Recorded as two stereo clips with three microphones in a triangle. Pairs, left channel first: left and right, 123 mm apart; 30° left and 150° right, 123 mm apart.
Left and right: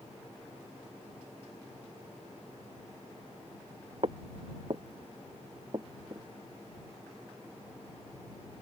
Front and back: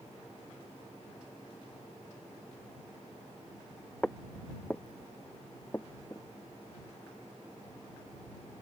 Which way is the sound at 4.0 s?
50° right.